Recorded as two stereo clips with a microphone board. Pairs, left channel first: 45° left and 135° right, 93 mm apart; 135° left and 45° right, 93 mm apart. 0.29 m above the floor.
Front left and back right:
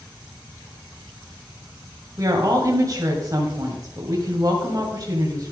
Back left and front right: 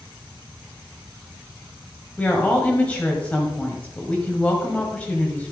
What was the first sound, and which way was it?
A woman speaking, 155° right.